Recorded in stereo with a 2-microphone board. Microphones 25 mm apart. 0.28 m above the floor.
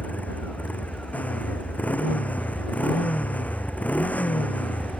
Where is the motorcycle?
90° left.